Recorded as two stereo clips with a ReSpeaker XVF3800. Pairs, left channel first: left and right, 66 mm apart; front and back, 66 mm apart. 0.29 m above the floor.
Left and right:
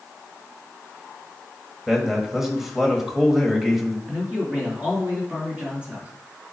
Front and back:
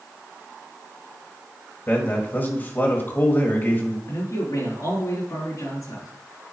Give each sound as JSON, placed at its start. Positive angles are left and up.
{"t": 1.9, "sound": "a man speaking", "azimuth_deg": -10, "distance_m": 1.6}
{"t": 4.0, "sound": "a man speaking", "azimuth_deg": -20, "distance_m": 4.0}